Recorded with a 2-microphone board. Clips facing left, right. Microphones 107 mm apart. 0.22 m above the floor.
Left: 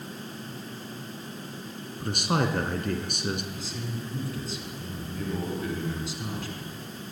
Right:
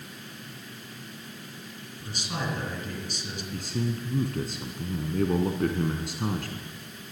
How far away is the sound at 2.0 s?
About 3 m.